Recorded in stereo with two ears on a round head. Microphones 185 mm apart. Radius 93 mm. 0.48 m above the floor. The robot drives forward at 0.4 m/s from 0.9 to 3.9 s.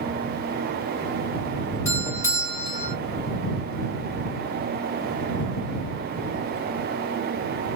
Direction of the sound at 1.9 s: 15° left (ahead or behind).